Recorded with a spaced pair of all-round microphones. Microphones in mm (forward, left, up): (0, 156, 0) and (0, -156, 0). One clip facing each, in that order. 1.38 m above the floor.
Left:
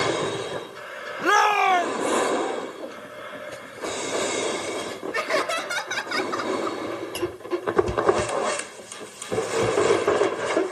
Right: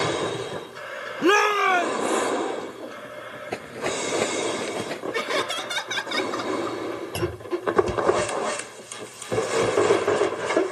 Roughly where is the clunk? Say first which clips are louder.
Right 2 dB; right.